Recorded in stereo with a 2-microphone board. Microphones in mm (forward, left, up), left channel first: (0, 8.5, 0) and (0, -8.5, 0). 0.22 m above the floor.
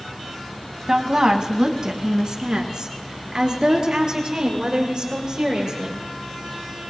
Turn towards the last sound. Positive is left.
turn(degrees=-45)  # may be behind; listen again after turning